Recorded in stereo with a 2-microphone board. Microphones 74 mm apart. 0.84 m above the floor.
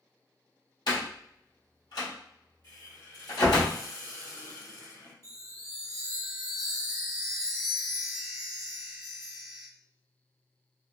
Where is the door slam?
65° left (ahead or behind), 1.5 m.